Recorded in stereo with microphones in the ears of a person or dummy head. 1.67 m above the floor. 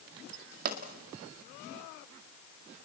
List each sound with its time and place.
0.7 s a pop: 45° right (ahead or behind), 2.0 m